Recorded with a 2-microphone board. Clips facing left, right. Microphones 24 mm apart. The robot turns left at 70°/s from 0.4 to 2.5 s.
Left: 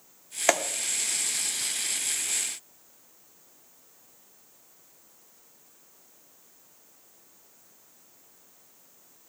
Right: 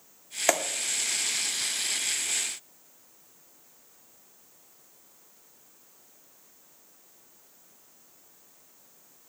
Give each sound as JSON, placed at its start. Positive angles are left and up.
{"t": 0.5, "sound": "a clap", "side_deg": 10, "distance_m": 1.3}